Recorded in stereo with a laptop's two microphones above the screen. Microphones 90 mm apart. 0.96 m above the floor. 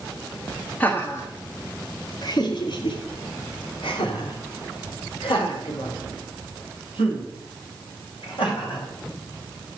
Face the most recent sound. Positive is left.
turn(degrees=75)  # may be behind; listen again after turning